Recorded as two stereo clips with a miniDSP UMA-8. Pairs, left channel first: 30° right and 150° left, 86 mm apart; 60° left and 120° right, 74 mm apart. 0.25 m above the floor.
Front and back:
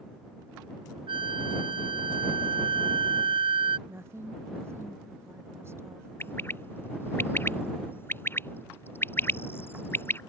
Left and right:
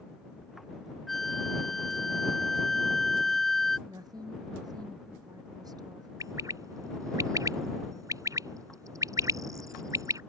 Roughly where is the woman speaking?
Behind right.